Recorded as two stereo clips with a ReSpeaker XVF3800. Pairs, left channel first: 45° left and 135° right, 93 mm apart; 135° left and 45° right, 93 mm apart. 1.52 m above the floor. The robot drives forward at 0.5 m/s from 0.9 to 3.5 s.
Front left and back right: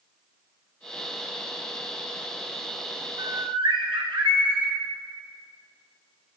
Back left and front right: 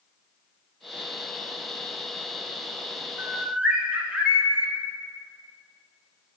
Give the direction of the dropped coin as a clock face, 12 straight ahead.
I don't hear a dropped coin.